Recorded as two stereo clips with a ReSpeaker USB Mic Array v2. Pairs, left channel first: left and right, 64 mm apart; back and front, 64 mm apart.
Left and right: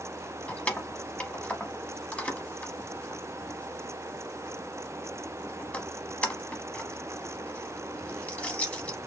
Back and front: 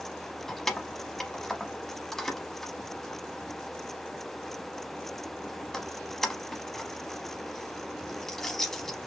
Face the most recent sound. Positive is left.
turn(degrees=110)